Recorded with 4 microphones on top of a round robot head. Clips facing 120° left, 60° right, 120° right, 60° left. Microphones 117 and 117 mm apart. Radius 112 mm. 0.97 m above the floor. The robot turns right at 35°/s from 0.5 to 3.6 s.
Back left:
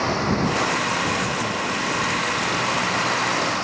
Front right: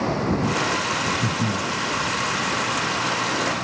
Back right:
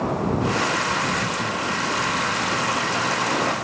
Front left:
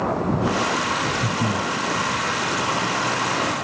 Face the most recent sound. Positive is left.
turn(degrees=80)